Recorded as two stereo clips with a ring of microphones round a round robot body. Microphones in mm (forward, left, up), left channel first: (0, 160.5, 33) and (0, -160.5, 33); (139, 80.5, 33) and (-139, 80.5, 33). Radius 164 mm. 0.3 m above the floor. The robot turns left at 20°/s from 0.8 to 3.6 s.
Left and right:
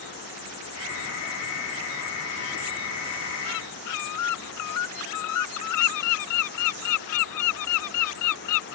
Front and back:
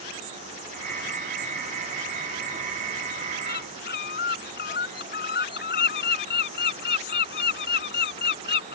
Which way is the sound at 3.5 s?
55° left.